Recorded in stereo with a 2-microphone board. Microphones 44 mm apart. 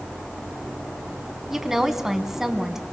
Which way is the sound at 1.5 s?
10° right (ahead or behind).